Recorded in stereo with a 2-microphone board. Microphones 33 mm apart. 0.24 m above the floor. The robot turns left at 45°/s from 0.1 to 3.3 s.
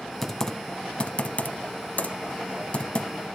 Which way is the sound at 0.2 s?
10° left (ahead or behind).